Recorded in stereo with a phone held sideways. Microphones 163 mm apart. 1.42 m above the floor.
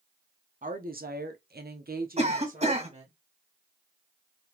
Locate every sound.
0.6 s a woman speaking: 55° right (ahead or behind), 1.0 m; by 3.1 s 45° right (ahead or behind), 1.4 m
2.2 s a cough: 40° right (ahead or behind), 1.7 m